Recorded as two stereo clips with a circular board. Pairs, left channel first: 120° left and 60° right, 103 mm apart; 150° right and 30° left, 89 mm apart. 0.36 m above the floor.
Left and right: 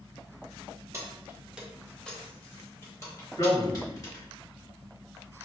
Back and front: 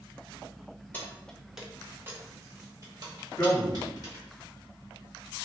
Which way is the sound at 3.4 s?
150° left.